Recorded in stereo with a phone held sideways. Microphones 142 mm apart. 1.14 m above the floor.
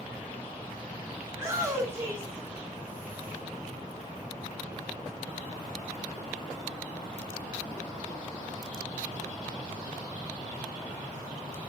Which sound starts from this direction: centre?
A shout, at 1.3 s.